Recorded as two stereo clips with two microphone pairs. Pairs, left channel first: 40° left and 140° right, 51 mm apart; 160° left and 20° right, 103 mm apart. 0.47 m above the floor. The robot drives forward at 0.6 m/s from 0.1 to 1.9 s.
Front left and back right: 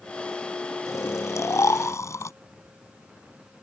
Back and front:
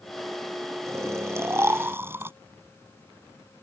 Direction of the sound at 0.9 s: 40° left.